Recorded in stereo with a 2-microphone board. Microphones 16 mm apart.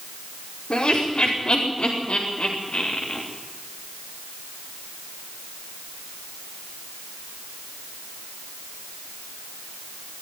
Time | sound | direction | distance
0.7 | laughter | 65° left (ahead or behind) | 5 m